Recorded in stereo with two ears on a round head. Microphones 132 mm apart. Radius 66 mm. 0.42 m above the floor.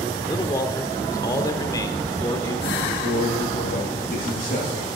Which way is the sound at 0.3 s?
25° left (ahead or behind).